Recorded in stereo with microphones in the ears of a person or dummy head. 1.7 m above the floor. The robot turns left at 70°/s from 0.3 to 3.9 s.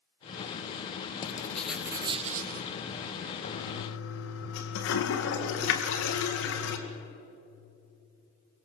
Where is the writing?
35° left, 1.4 m; by 2.7 s 65° right, 1.4 m.